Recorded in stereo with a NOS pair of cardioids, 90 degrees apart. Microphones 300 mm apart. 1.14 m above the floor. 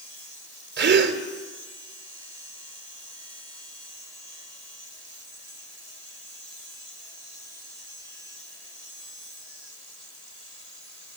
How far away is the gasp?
About 3 m.